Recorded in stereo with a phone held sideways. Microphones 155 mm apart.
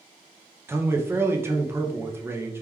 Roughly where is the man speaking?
Centre.